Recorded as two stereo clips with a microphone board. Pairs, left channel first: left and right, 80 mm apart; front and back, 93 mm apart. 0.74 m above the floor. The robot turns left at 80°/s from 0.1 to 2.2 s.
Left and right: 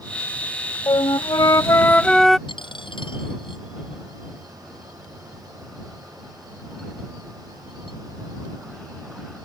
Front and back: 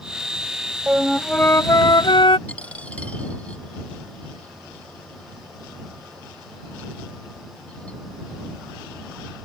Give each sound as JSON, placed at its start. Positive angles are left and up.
{"t": 0.9, "sound": "a flute", "azimuth_deg": 110}
{"t": 2.5, "sound": "a dropped coin", "azimuth_deg": 75}